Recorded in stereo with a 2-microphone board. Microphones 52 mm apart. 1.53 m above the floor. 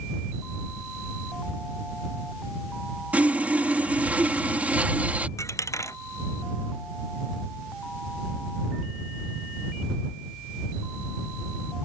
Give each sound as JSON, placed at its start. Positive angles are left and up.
{"t": 3.1, "sound": "sawing", "side_deg": -30}
{"t": 5.4, "sound": "a dropped coin", "side_deg": 80}